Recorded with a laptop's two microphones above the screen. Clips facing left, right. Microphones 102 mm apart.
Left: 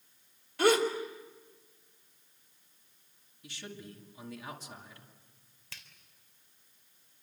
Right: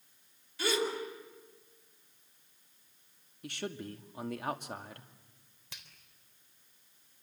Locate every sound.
0.6 s a gasp: 65° left (ahead or behind), 3 m
3.4 s a man speaking: 60° right (ahead or behind), 2 m
5.7 s a finger snap: 20° right (ahead or behind), 3.5 m